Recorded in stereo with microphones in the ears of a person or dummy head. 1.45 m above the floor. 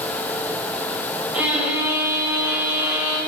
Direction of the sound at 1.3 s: 10° right (ahead or behind).